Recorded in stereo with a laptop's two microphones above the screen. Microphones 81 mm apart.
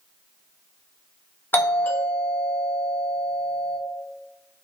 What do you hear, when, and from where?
1.5 s a doorbell: 25° left (ahead or behind), 0.6 m